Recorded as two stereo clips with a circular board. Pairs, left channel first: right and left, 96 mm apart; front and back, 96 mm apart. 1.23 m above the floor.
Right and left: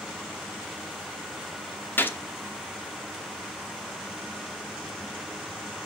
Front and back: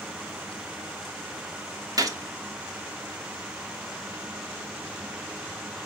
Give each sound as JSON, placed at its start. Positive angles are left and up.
{"t": 2.0, "sound": "a gunshot", "azimuth_deg": -150, "distance_m": 1.0}